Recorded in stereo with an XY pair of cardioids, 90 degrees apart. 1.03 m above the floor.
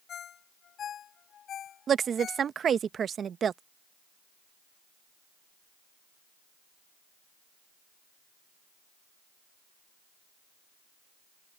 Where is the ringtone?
70° left.